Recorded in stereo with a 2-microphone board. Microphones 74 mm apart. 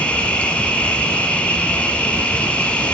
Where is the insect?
15° left (ahead or behind), 1.1 m.